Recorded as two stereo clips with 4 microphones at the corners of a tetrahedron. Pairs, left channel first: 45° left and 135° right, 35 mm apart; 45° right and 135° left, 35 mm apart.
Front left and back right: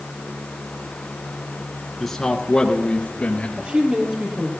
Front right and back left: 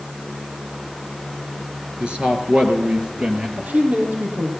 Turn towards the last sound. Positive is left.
turn(degrees=175)